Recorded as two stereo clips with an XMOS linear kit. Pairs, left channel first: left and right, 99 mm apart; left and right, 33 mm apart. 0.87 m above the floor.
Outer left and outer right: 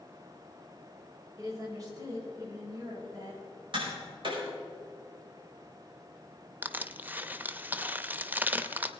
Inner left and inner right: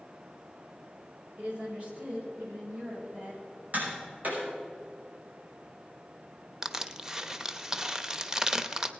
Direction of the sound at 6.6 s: 20° right (ahead or behind).